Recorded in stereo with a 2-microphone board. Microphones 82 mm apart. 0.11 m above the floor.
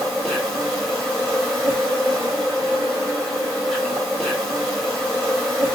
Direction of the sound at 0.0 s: 5° left (ahead or behind).